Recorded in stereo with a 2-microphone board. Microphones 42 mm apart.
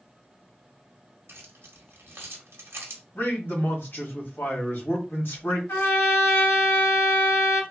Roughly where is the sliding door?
No sliding door in this recording.